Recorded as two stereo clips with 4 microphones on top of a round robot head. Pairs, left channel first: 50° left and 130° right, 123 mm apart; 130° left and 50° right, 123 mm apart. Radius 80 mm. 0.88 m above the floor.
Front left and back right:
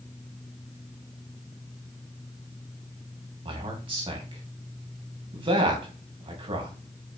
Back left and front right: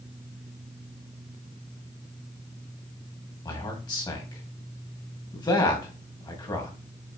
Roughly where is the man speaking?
Behind.